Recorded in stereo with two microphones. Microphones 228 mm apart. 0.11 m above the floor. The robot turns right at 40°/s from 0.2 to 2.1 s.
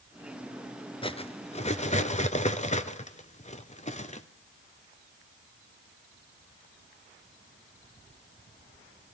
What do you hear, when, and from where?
1.0 s cutlery clinking: 25° left (ahead or behind), 0.7 m; by 4.3 s 30° left (ahead or behind), 0.7 m